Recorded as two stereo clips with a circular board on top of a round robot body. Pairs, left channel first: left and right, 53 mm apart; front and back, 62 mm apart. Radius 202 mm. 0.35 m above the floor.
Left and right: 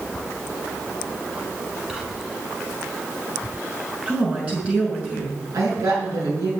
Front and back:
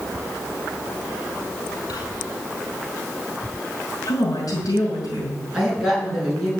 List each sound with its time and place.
1.9 s whispering: 10° right, 6.5 m
4.1 s a woman speaking: 25° right, 6.5 m
5.5 s a woman speaking: 100° right, 7 m